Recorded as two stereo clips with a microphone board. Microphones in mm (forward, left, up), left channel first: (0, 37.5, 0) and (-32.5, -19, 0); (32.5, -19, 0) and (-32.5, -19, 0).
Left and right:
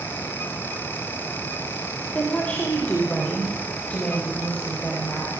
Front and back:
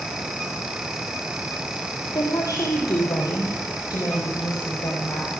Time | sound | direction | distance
2.1 | a woman speaking | 10° right | 3 m